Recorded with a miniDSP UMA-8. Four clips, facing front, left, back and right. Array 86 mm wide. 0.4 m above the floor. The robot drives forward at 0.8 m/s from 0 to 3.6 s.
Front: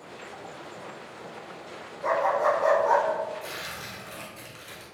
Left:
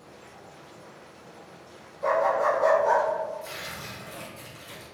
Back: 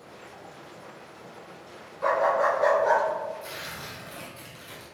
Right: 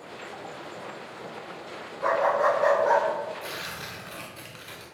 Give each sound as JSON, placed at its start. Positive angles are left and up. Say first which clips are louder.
{"t": 2.0, "sound": "a dog barking", "louder": "even, back 1 dB", "azimuth_deg": -140, "distance_m": 1.1}
{"t": 3.4, "sound": "tearing paper", "louder": "right 2 dB, front 1 dB", "azimuth_deg": -75, "distance_m": 1.5}